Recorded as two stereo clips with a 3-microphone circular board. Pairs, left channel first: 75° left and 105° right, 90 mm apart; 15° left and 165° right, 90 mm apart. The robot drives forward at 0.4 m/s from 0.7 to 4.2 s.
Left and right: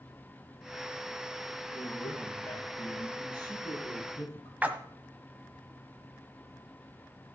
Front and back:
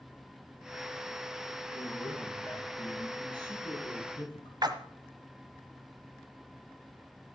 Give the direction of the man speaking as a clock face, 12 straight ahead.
11 o'clock.